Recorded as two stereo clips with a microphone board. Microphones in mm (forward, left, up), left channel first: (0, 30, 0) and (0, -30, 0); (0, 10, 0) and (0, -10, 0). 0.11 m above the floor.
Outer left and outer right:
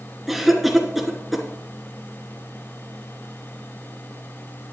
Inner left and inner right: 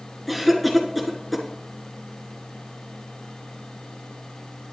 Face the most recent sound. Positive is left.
turn(degrees=-5)  # may be behind; listen again after turning